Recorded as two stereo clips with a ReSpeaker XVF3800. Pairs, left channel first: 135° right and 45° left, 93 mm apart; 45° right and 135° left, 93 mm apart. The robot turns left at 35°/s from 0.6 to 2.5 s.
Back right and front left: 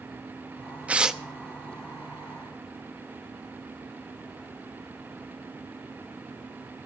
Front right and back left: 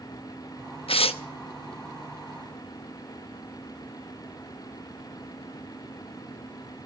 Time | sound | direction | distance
0.9 | tearing paper | 30° right | 0.7 m